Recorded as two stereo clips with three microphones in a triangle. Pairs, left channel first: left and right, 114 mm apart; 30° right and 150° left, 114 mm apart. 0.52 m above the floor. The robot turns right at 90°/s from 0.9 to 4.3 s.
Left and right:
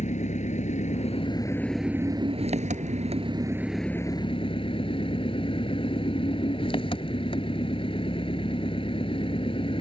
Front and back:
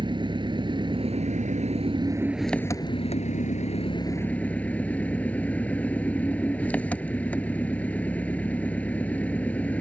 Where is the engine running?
100° left; by 9.8 s 45° left.